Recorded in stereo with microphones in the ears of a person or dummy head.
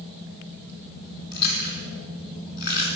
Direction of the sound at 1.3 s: 55° left (ahead or behind).